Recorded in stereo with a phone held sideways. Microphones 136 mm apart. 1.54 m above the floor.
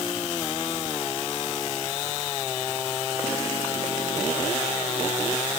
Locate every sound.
Only background noise.